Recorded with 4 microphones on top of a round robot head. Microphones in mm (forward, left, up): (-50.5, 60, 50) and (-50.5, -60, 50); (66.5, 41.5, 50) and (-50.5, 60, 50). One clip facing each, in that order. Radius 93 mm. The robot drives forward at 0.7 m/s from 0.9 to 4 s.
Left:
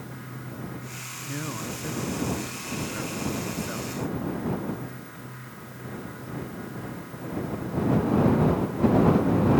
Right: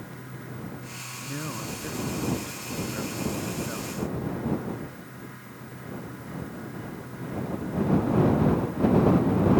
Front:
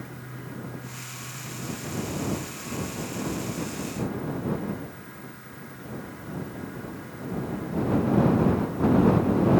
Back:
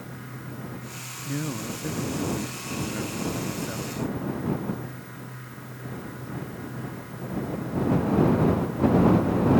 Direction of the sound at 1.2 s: Straight behind.